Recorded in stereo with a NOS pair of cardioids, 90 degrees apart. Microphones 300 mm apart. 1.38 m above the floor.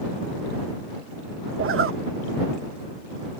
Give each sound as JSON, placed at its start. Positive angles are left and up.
{"t": 1.6, "sound": "a zipper", "azimuth_deg": -45}